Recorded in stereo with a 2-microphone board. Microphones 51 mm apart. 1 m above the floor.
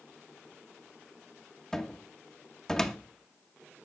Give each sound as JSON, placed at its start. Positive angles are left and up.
{"t": 1.7, "sound": "a cupboard door", "side_deg": 10, "distance_m": 0.8}